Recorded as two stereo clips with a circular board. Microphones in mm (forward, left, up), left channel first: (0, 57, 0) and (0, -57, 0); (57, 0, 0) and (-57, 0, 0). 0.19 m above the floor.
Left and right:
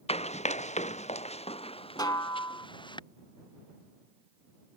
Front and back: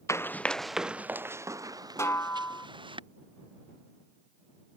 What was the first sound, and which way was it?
Running footsteps, 65° left.